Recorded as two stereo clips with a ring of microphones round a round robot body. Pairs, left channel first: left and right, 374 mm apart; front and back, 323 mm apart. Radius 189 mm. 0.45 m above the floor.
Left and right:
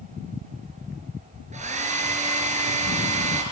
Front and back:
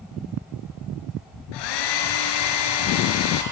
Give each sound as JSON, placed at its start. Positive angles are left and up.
{"t": 1.5, "sound": "a hair dryer", "azimuth_deg": -15, "distance_m": 2.5}